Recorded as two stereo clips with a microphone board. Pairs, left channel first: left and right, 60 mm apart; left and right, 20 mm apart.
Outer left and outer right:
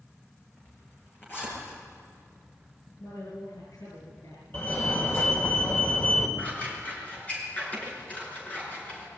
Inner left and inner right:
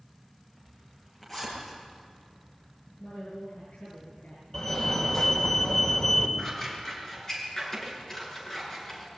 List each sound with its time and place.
0.6 s a zipper: 30° left (ahead or behind), 9.5 m
3.0 s a woman speaking: 65° left (ahead or behind), 7 m
4.5 s a fire alarm: 35° left (ahead or behind), 3 m
6.4 s scissors: 25° left (ahead or behind), 6 m